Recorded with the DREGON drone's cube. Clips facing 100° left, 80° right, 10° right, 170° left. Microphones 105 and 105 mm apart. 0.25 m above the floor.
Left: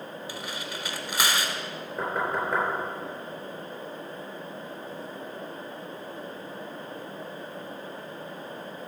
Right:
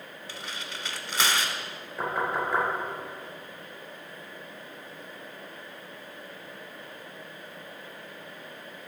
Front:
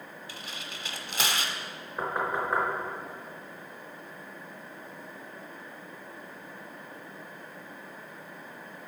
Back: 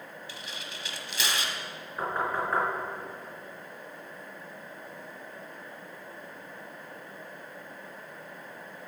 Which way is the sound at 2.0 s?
60° left.